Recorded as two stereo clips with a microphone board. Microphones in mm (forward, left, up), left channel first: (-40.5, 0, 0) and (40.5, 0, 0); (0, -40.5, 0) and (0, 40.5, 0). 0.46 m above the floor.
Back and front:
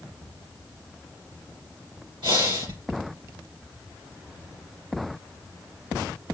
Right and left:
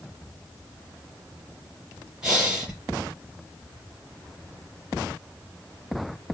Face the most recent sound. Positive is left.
turn(degrees=5)